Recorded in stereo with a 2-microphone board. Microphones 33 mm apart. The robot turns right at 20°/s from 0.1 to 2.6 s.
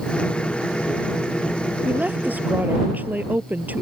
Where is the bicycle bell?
No bicycle bell in this recording.